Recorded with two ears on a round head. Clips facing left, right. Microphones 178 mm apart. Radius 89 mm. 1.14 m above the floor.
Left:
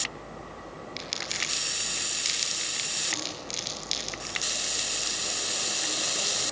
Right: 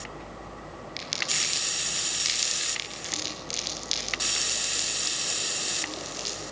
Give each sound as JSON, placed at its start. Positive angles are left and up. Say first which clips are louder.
{"t": 1.0, "sound": "crumpling", "louder": "even", "side_deg": 0, "distance_m": 6.0}